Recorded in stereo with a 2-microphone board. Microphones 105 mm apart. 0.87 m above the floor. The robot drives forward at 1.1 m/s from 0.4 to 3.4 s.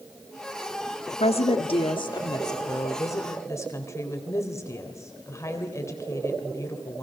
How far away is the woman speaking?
About 1.5 m.